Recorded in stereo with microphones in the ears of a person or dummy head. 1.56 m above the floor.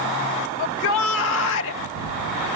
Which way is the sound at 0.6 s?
70° left (ahead or behind).